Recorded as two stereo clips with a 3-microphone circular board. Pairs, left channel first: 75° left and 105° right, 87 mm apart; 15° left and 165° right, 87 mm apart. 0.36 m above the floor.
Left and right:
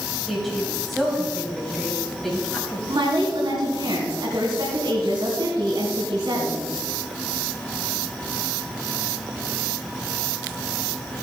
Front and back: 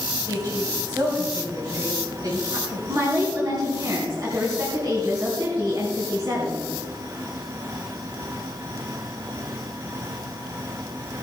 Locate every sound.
0.3 s a woman speaking: 165° left, 2.5 m
2.9 s a woman speaking: 125° right, 4 m